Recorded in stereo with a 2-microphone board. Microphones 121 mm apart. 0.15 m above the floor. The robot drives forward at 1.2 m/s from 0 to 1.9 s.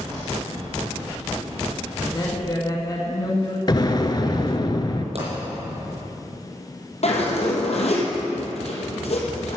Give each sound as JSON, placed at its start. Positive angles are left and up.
{"t": 2.0, "sound": "a woman speaking", "side_deg": 35, "distance_m": 1.9}
{"t": 3.7, "sound": "an explosion", "side_deg": 40, "distance_m": 0.9}
{"t": 5.2, "sound": "a pop", "side_deg": -60, "distance_m": 5.5}
{"t": 7.0, "sound": "a zipper", "side_deg": 65, "distance_m": 3.5}